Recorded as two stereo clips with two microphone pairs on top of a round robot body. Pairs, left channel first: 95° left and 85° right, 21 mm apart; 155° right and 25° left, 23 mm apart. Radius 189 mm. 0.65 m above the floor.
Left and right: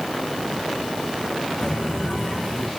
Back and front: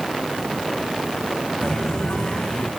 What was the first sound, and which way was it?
Footsteps, 160° left.